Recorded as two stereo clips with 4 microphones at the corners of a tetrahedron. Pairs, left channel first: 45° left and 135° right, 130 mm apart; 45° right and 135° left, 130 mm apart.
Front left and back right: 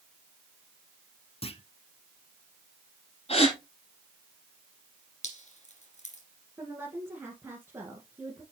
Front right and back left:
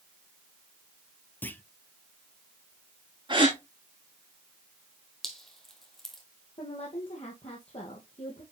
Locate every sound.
1.4 s a clunk: 25° left, 0.8 m
3.3 s a gasp: 85° left, 4.5 m
5.2 s dripping: 40° left, 2 m
6.6 s a woman speaking: 65° right, 2 m